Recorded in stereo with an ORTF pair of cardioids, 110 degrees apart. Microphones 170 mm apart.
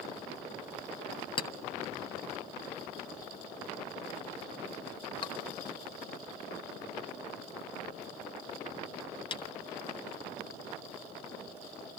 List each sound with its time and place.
1.4 s a clink: 30° left, 0.9 m